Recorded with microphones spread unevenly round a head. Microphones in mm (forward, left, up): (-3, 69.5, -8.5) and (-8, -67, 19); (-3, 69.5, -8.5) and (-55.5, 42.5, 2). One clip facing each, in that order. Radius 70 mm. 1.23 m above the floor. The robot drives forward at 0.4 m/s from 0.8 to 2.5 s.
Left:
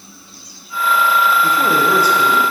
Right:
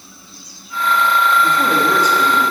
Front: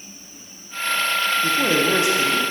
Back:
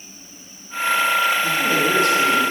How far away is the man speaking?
About 0.7 m.